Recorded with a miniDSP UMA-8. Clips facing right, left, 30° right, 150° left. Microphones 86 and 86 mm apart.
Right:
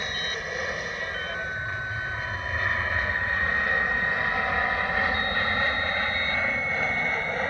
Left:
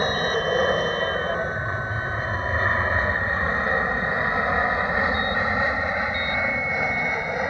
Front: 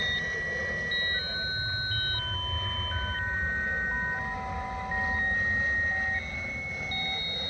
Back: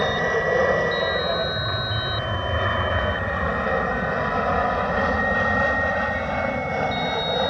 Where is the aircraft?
135° left; by 7.5 s 170° left.